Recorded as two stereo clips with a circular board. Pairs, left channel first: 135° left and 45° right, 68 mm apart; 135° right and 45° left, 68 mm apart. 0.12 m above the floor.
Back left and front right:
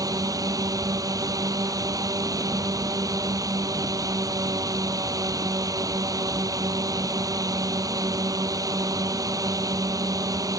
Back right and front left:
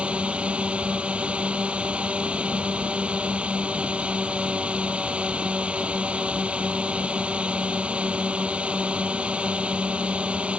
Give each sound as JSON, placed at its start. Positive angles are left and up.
{"t": 0.0, "sound": "a drone", "azimuth_deg": -25}